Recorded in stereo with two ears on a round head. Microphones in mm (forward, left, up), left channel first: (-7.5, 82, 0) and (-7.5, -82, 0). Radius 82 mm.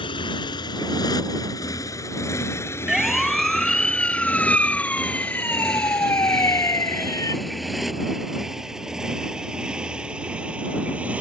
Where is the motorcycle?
25° left (ahead or behind); by 11.2 s 10° right (ahead or behind).